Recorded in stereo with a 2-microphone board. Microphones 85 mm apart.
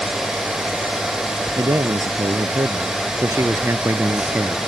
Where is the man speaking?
45° right (ahead or behind); by 4.6 s 25° right (ahead or behind).